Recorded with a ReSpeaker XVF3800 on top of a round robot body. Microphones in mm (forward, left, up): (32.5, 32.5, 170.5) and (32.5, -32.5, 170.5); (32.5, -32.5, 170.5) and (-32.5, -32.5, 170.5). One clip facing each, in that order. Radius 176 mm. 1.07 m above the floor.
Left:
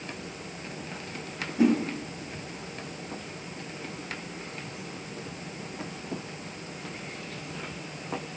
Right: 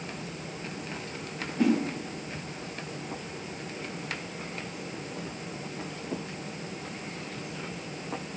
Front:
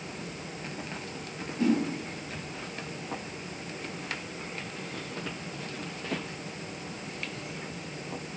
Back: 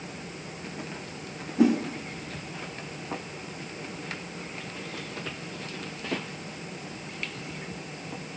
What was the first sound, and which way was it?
A whoosh, 170° left.